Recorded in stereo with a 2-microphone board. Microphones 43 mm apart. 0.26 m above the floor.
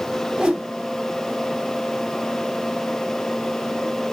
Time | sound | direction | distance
0.4 | a whoosh | 15° right (ahead or behind) | 1.1 m